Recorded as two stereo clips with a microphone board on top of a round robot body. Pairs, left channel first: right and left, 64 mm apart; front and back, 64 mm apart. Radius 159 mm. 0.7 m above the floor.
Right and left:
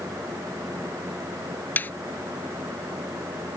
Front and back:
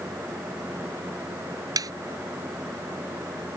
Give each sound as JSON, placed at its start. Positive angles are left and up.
{"t": 1.8, "sound": "a snare drum", "azimuth_deg": -155}